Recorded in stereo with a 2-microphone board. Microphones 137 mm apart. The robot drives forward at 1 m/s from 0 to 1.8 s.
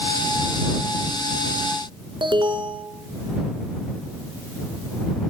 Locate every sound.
2.2 s an alarm: 35° right (ahead or behind), 2.5 m